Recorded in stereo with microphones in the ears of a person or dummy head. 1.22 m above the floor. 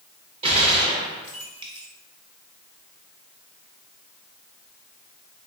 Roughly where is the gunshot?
Right.